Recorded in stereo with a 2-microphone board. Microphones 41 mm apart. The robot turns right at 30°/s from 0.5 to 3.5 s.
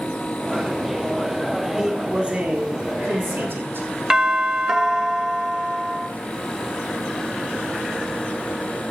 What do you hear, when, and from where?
1.8 s a man speaking: 165° right, 1.7 m; by 3.9 s 115° right, 1.7 m
4.1 s a doorbell: 10° right (ahead or behind), 0.8 m